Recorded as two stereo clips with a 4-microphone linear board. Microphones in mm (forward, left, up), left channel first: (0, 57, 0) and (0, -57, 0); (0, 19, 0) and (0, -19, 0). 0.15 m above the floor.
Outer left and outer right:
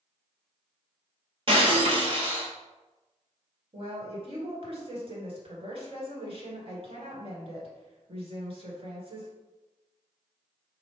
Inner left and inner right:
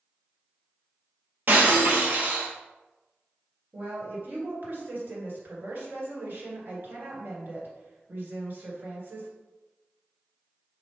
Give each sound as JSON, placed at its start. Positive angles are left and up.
{"t": 1.5, "sound": "breaking glass", "side_deg": -50, "distance_m": 1.1}
{"t": 3.7, "sound": "a woman speaking", "side_deg": -50, "distance_m": 1.7}